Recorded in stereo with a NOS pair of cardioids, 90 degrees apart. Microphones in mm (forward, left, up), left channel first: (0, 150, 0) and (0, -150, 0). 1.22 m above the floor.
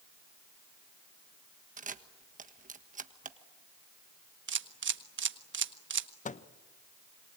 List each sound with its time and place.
1.8 s a camera shutter: 25° right, 1.4 m
4.5 s a camera shutter: 40° right, 1.5 m
6.2 s a microwave: 25° left, 1.0 m